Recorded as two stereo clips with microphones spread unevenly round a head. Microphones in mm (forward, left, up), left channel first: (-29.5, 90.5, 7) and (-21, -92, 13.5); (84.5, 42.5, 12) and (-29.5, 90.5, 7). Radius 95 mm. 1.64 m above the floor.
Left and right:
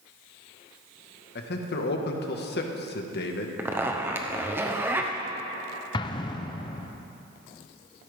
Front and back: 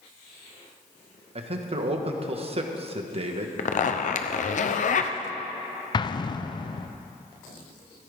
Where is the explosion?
25° left, 0.6 m.